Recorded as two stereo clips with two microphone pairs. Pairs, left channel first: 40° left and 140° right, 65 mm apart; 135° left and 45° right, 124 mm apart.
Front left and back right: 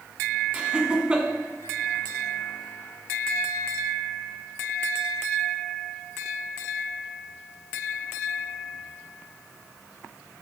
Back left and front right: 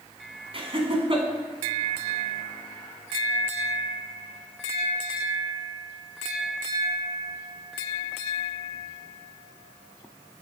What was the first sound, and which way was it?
Laughter, 70° right.